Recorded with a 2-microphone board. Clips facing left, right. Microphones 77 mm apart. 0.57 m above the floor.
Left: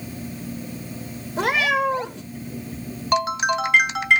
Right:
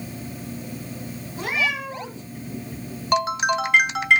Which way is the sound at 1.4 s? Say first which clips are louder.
Left 6 dB; 80° left.